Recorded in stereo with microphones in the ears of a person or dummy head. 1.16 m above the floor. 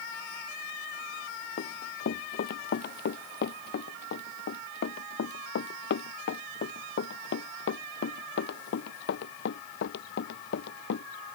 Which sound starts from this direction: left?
Running footsteps, at 1.6 s.